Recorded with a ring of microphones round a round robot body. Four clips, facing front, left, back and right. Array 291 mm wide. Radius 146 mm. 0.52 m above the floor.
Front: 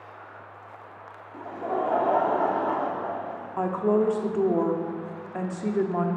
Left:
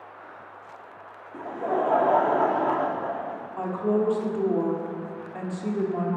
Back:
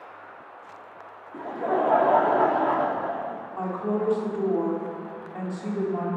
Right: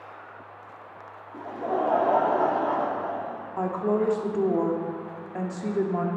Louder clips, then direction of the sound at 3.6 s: Even, front 5 dB; 25° right.